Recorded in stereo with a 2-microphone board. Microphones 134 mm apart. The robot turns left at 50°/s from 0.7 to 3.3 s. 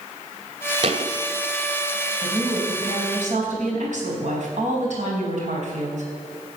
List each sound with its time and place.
0.8 s a thud: 45° right (ahead or behind), 1.4 m; by 1.1 s 60° right (ahead or behind), 1.4 m
2.2 s a woman speaking: 15° right, 4.5 m; by 6.0 s 70° right, 4.5 m